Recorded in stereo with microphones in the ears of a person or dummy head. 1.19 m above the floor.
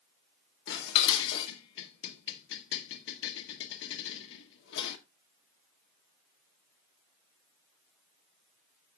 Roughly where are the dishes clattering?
Left.